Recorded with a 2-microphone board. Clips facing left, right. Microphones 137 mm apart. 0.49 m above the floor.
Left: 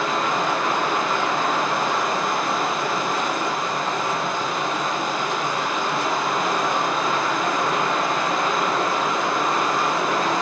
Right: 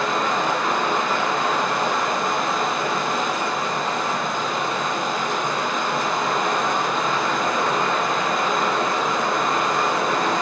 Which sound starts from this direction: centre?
Running water, at 0.0 s.